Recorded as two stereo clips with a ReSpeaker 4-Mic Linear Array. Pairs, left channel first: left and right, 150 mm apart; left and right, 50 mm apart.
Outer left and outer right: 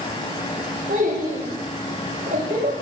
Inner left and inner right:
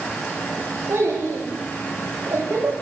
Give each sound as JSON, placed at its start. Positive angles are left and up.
{"t": 0.9, "sound": "a child speaking", "side_deg": -80, "distance_m": 6.5}